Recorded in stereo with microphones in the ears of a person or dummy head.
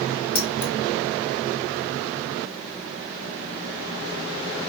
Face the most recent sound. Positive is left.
turn(degrees=35)  # may be behind; listen again after turning